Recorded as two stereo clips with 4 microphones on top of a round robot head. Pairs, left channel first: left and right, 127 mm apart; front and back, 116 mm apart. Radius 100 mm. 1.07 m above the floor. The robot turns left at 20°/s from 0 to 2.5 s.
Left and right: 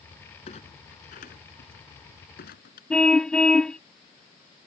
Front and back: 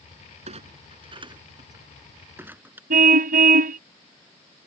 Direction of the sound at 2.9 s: 175° left.